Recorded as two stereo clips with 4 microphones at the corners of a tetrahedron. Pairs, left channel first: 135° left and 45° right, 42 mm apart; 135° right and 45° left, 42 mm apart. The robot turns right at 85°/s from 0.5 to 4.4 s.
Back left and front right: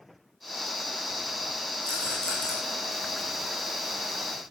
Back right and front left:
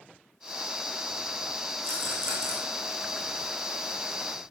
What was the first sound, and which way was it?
A rattle, 5° right.